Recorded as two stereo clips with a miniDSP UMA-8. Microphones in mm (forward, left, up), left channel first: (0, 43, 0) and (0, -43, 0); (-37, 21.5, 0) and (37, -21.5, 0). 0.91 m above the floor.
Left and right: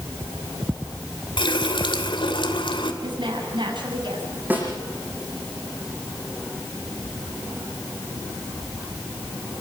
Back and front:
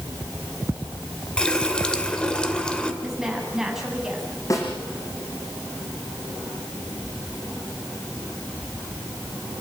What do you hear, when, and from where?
1.4 s a running tap: 70° left, 2 m
3.0 s a woman speaking: 115° right, 7.5 m
4.5 s a snare drum: 160° right, 8 m